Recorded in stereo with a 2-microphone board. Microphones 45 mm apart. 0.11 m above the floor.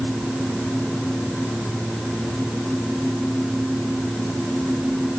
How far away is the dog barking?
No dog barking in this recording.